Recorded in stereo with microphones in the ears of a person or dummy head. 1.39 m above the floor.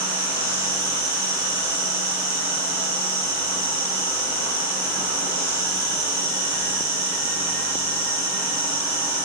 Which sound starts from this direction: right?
An insect, at 0.0 s.